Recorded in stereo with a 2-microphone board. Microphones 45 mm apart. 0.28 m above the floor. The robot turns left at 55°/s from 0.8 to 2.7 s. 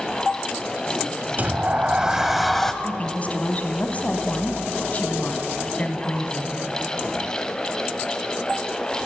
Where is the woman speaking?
30° left (ahead or behind), 2 m.